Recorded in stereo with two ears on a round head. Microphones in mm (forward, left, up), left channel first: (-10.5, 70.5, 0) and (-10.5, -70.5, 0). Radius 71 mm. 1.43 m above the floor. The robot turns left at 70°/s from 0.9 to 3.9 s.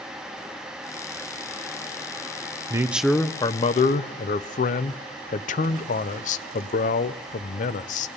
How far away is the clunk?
No clunk in this recording.